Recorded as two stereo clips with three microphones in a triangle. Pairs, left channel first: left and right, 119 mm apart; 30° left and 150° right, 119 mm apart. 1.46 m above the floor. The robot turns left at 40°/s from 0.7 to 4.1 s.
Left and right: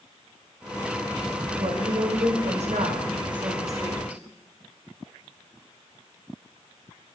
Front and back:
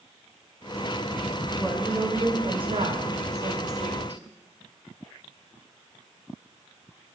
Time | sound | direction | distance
1.6 | a woman speaking | 65° right | 0.9 m